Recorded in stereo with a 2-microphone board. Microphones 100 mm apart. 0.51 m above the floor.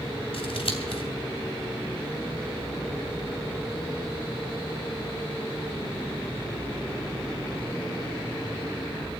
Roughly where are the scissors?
Left.